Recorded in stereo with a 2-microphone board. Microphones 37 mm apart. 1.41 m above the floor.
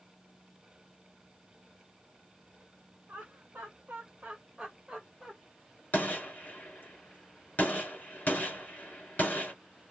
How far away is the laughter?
About 0.8 m.